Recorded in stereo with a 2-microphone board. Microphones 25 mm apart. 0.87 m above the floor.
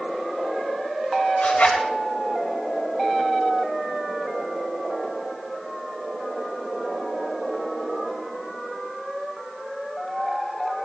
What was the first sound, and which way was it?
A zipper, 65° left (ahead or behind).